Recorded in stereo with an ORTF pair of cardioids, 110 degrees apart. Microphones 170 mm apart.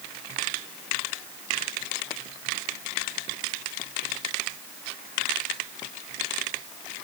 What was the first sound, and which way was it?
Only background noise.